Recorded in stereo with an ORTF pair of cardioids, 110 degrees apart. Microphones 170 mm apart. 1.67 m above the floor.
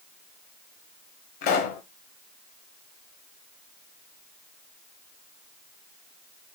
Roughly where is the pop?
Left.